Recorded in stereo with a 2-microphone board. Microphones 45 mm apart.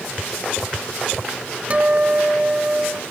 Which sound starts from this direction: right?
A guitar, at 1.7 s.